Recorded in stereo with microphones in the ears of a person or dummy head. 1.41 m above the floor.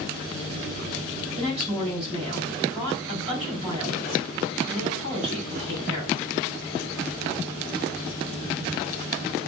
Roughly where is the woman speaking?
Right.